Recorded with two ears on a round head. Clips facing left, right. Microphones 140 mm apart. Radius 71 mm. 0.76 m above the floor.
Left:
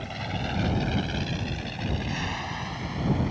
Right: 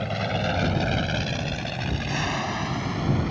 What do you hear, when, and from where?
0.0 s an aircraft: 65° right (ahead or behind)